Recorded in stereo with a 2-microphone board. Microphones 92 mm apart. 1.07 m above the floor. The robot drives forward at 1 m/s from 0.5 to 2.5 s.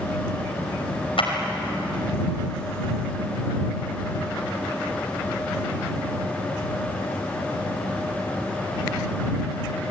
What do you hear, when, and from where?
1.2 s a clap: 85° left, 5 m